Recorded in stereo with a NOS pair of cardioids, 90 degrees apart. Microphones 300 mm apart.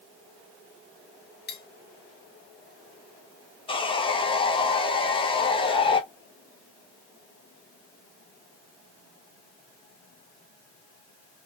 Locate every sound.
1.5 s cutlery clinking: 30° left, 0.9 m
3.7 s sawing: 15° left, 0.7 m